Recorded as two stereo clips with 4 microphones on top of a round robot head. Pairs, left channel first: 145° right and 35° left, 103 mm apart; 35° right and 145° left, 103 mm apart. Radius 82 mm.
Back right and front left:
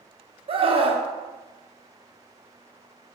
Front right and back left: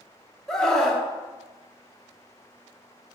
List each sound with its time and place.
0.5 s a scream: 45° left, 1.4 m